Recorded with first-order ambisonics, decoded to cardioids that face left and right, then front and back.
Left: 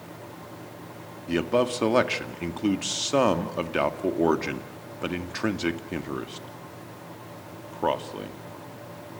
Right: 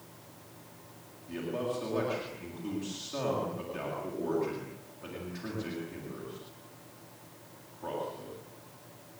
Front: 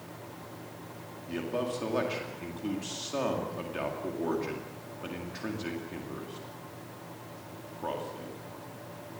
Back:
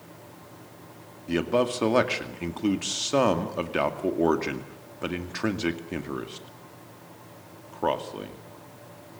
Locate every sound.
1.3 s a man speaking: 125° left, 2 m